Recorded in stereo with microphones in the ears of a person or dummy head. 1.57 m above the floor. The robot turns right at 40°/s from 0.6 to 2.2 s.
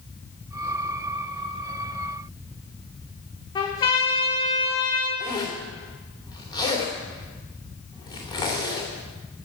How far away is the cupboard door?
I don't hear a cupboard door.